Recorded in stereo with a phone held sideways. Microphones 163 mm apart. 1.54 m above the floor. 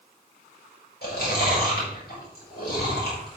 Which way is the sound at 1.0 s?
75° left (ahead or behind).